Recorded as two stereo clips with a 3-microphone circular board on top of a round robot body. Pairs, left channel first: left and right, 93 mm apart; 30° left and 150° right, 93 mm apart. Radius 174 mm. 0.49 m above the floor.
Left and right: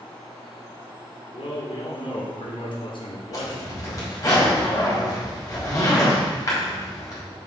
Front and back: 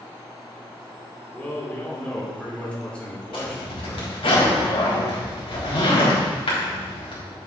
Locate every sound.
1.3 s a man speaking: 110° left, 2.5 m
3.3 s a zipper: 40° left, 4 m